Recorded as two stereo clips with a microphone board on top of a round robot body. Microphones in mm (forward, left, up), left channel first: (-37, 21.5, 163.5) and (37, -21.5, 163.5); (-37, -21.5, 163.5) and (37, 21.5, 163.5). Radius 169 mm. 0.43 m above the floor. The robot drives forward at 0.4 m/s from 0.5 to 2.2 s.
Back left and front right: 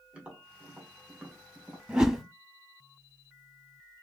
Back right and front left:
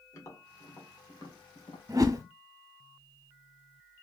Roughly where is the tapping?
Right.